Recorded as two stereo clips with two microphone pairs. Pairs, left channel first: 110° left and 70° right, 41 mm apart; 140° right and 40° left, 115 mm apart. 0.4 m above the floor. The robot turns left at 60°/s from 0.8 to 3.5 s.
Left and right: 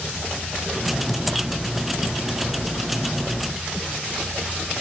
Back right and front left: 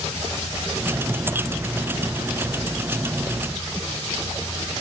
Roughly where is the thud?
No thud in this recording.